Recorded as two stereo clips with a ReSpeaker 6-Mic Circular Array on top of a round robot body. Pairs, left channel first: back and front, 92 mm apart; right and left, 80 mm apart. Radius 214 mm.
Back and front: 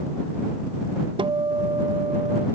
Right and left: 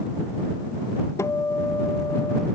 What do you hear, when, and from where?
1.2 s a guitar: 30° right